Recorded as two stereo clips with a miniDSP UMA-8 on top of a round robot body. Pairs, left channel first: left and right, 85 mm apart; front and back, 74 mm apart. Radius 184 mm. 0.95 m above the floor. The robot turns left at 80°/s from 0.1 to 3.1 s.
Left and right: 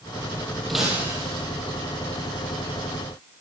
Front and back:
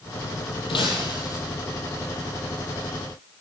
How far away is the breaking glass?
About 7 m.